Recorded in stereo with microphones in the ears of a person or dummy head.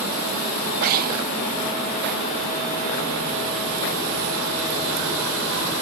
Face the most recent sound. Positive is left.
turn(degrees=-35)  # may be behind; listen again after turning